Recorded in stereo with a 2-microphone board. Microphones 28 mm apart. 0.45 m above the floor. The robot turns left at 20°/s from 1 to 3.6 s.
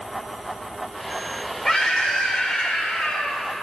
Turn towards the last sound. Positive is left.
turn(degrees=115)